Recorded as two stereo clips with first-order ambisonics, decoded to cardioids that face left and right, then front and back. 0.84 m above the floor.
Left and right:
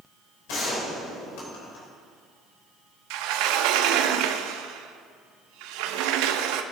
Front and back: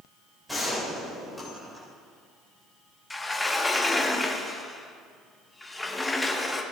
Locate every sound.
0.5 s a gunshot: 90° left, 4 m
3.1 s a sliding door: 80° right, 0.8 m